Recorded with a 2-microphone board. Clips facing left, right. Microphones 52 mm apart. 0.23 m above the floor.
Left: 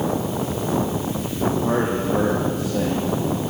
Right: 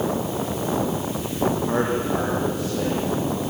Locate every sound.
1.6 s a man speaking: 55° left (ahead or behind), 7.5 m